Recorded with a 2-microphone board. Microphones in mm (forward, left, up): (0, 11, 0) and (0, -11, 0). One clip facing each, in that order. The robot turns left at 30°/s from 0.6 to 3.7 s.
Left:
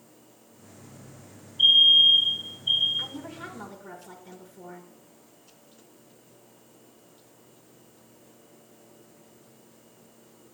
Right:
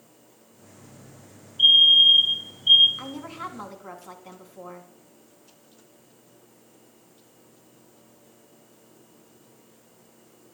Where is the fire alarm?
10° right, 3.5 m; by 2.9 s 50° right, 3.5 m.